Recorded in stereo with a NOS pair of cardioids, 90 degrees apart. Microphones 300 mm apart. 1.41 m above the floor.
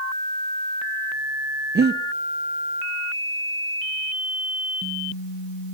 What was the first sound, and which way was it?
Breathing, 35° right.